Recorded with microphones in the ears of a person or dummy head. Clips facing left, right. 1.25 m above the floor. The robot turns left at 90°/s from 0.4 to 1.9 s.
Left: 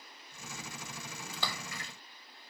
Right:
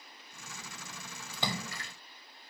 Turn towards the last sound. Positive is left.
turn(degrees=-65)